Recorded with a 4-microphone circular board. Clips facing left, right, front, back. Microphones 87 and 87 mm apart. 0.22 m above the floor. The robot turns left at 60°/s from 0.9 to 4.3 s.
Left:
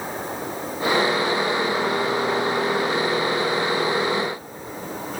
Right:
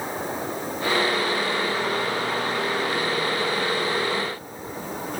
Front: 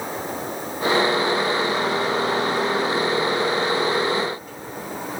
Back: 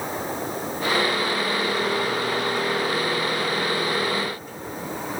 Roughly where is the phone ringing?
No phone ringing in this recording.